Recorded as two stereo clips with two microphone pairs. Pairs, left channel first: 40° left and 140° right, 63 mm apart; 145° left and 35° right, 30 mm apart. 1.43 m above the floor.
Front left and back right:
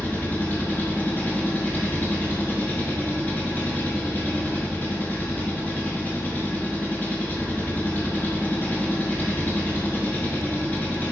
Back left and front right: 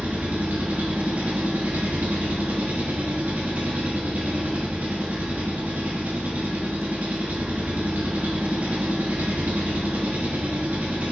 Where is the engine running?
20° right, 1.5 m.